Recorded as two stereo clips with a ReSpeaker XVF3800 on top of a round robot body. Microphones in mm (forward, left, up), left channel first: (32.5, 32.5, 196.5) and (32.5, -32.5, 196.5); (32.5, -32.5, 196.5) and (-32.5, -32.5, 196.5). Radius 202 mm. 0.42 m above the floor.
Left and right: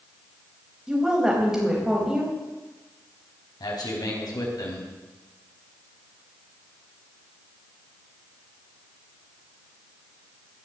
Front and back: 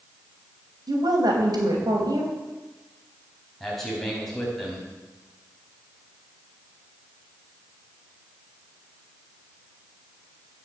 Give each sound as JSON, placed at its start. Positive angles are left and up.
{"t": 0.9, "sound": "a woman speaking", "azimuth_deg": -170, "distance_m": 4.0}
{"t": 3.6, "sound": "a man speaking", "azimuth_deg": 85, "distance_m": 4.5}